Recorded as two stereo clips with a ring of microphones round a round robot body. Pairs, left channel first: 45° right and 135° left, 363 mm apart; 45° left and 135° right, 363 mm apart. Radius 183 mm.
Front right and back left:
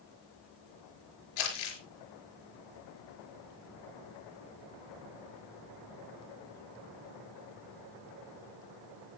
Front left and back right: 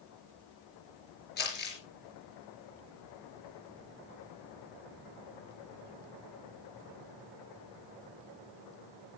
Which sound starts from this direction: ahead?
Crumpling, at 1.4 s.